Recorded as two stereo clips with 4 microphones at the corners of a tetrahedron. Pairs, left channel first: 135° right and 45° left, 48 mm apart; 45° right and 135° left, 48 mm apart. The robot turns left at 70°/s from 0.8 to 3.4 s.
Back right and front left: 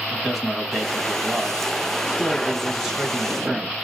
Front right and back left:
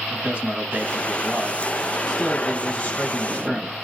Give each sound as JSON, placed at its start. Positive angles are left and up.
{"t": 0.1, "sound": "a man speaking", "azimuth_deg": 125, "distance_m": 1.3}